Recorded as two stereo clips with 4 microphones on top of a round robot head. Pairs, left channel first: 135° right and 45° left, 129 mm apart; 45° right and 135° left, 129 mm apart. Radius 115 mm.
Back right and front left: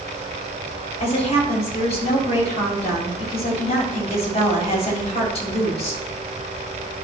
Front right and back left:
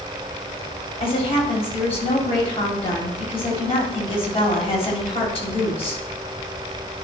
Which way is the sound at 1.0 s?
95° right.